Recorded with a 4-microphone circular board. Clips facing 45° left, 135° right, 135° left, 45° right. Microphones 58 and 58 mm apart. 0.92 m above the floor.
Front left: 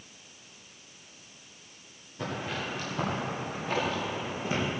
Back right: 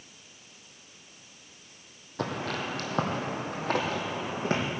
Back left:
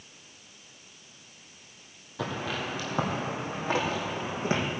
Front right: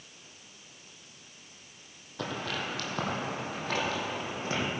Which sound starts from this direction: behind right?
Footsteps, at 2.2 s.